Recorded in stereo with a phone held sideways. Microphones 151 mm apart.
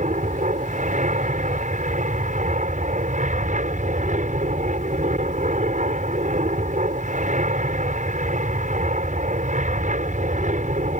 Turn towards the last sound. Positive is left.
turn(degrees=-55)  # may be behind; listen again after turning